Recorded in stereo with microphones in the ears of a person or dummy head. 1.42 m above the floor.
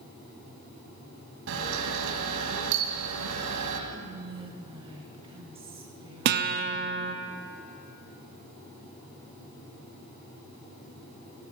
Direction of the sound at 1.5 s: 70° right (ahead or behind).